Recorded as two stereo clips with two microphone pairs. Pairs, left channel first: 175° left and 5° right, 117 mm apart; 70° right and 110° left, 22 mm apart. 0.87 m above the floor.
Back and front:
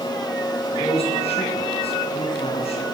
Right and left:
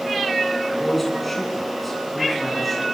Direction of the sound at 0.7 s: 150° right.